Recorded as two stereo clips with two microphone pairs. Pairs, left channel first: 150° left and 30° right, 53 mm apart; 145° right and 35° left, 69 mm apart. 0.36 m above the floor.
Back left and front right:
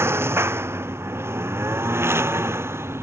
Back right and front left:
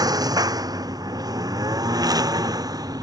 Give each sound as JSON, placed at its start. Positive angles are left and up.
{"t": 0.0, "sound": "a lawn mower", "azimuth_deg": 10}